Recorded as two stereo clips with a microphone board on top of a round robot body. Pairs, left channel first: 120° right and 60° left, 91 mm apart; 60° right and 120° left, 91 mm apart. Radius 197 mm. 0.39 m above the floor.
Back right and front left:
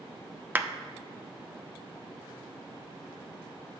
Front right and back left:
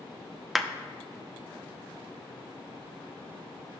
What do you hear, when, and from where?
0.6 s a clap: 35° left, 0.8 m